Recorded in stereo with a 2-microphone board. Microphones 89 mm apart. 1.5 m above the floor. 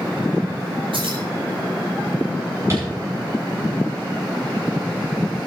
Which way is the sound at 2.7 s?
30° right (ahead or behind).